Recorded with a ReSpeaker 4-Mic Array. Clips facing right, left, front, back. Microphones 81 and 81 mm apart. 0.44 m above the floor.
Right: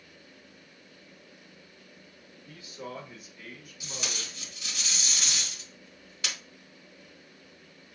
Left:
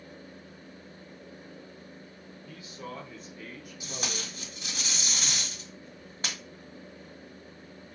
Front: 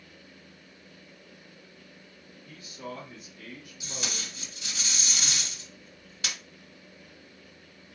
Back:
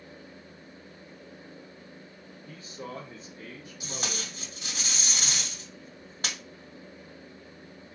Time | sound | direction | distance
2.5 | a man speaking | 145° right | 1.5 m
3.8 | tape being pulled | 140° left | 1.6 m